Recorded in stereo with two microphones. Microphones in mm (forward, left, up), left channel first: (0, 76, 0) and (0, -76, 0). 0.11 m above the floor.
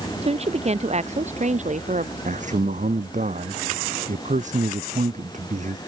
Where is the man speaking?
50° right (ahead or behind).